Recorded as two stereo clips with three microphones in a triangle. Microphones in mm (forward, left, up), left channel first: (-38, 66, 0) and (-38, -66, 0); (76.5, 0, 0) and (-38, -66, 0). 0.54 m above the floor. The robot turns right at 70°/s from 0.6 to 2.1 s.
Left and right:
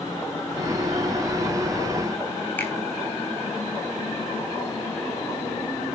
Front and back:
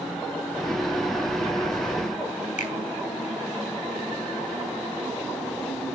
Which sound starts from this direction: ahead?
A finger snap, at 2.6 s.